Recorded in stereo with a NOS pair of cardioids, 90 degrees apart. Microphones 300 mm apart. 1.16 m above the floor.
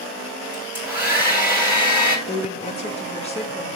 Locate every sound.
0.5 s a hair dryer: 5° right, 3 m
2.3 s a woman speaking: 20° left, 1.8 m